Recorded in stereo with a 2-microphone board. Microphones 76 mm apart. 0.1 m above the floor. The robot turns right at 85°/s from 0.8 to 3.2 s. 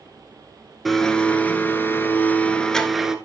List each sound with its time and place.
0.8 s a blender: centre (ahead or behind), 0.9 m; by 3.1 s 5° right (ahead or behind), 0.9 m